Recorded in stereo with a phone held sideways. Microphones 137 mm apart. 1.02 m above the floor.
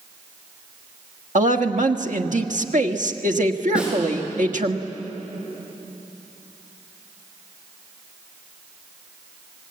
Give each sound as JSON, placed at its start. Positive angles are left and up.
{"t": 1.4, "sound": "a woman speaking", "side_deg": -70, "distance_m": 1.4}
{"t": 3.8, "sound": "a snare drum", "side_deg": -10, "distance_m": 6.5}